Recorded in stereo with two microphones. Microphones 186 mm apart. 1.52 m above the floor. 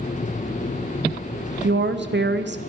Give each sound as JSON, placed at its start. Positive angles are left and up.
{"t": 1.6, "sound": "a woman speaking", "side_deg": -65, "distance_m": 0.7}